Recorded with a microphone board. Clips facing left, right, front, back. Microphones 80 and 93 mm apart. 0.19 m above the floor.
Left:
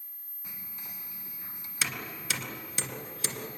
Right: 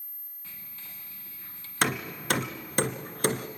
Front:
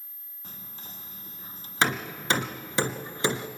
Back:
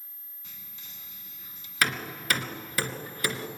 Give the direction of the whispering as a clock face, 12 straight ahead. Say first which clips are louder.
Left 2 dB, front 7 dB; 11 o'clock.